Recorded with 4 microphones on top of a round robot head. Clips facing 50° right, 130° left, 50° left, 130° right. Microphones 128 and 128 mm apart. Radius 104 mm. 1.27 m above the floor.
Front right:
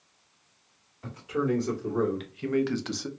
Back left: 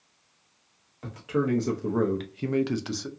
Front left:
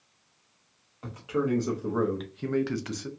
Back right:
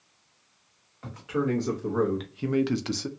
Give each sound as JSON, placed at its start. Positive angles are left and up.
{"t": 1.0, "sound": "a man speaking", "azimuth_deg": 120, "distance_m": 1.2}